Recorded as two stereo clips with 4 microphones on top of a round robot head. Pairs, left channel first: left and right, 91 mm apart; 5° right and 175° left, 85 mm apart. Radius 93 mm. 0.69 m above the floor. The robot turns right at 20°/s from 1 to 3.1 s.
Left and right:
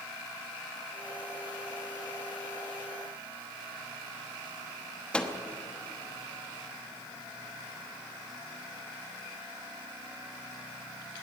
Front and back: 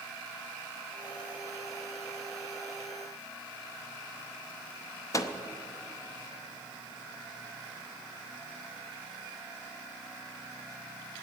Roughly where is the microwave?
Ahead.